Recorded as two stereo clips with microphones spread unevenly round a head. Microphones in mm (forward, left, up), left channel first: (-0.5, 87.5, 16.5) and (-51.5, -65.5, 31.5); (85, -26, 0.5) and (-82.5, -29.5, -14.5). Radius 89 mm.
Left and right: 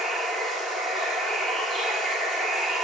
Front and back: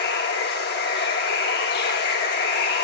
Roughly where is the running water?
Ahead.